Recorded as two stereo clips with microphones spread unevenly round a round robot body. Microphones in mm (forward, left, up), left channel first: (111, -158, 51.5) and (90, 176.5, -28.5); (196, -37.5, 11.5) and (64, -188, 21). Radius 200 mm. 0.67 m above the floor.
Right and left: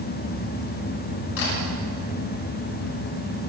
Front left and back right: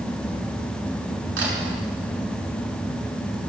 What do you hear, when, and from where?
1.4 s a camera shutter: 115° right, 6 m